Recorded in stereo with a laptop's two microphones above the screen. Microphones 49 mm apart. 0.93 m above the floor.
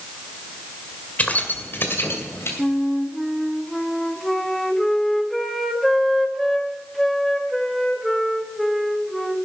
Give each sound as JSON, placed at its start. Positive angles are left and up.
{"t": 1.2, "sound": "keys jangling", "side_deg": 35, "distance_m": 2.0}
{"t": 2.6, "sound": "a flute", "side_deg": 5, "distance_m": 1.2}